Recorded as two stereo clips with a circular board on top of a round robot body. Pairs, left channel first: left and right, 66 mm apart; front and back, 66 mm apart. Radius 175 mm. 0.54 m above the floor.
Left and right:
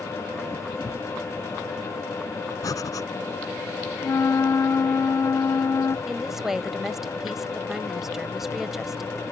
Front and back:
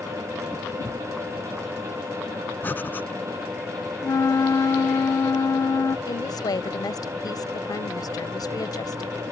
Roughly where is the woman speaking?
Ahead.